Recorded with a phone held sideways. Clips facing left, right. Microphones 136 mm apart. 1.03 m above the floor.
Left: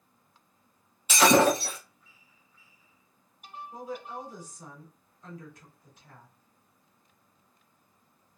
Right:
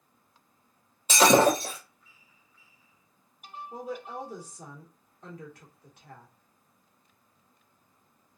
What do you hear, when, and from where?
1.1 s breaking glass: 40° right (ahead or behind), 2 m
3.7 s a woman speaking: 65° right (ahead or behind), 1.8 m